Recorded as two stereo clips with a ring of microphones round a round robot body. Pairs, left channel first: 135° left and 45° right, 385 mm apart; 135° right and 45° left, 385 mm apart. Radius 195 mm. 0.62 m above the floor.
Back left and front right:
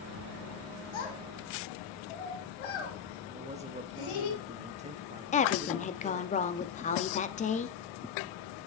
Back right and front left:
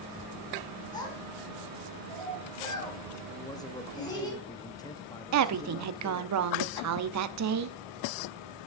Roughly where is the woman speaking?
Left.